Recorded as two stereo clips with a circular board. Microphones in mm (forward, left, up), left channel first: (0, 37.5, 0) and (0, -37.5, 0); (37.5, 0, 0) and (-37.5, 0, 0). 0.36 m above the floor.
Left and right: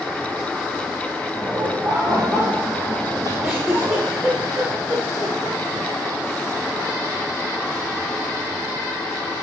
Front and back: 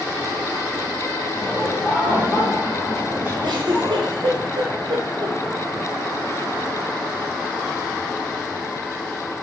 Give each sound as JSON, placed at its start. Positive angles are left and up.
{"t": 1.4, "sound": "laughter", "azimuth_deg": -85, "distance_m": 2.0}
{"t": 3.4, "sound": "a giggle", "azimuth_deg": -170, "distance_m": 2.5}